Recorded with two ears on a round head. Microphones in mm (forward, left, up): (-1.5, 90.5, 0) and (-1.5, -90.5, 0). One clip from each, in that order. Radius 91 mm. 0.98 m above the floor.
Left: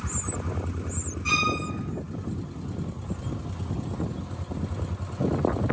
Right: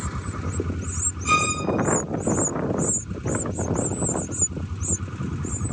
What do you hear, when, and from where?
1.2 s a violin: 10° left (ahead or behind), 7 m